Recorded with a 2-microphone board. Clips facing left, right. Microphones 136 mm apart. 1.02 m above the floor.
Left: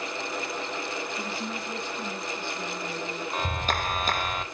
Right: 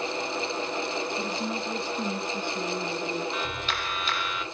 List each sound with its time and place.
1.2 s a woman speaking: 10° right (ahead or behind), 1.9 m; by 3.2 s 70° right (ahead or behind), 2.5 m
3.3 s a clap: 45° left (ahead or behind), 0.7 m